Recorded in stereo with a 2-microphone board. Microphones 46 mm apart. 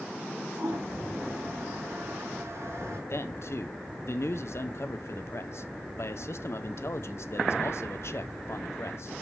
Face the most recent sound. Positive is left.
turn(degrees=65)  # may be behind; listen again after turning